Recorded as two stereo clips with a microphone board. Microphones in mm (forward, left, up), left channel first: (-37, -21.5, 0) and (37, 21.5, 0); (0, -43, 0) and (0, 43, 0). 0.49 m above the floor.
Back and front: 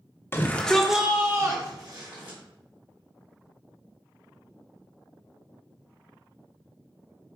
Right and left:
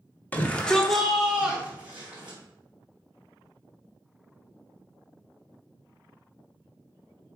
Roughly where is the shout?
Behind right.